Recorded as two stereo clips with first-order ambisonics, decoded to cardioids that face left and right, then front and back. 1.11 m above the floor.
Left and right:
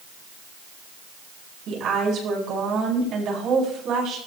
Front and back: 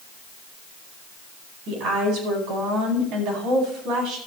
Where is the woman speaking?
140° right, 9.5 m.